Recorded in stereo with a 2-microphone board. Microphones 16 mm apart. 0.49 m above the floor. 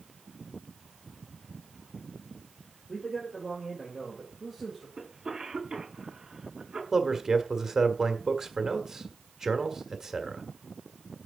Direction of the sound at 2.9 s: 5° left (ahead or behind).